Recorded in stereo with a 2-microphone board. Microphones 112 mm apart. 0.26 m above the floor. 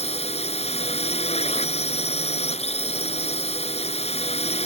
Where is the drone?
70° left (ahead or behind).